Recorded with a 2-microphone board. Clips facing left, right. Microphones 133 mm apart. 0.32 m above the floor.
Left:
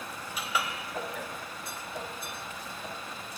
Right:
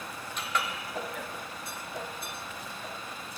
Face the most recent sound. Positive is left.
turn(degrees=5)  # may be behind; listen again after turning